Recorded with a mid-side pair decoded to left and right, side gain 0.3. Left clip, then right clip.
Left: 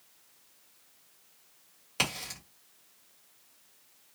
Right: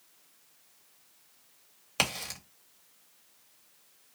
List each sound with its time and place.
2.0 s a crack: 60° right, 1.4 m